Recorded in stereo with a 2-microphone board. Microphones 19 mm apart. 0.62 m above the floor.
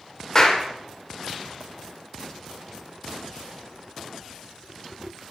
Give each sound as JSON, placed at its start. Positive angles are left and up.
{"t": 0.3, "sound": "a clap", "side_deg": 30, "distance_m": 1.9}